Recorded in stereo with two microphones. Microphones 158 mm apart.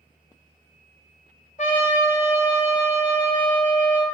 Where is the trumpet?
55° left (ahead or behind), 0.8 m.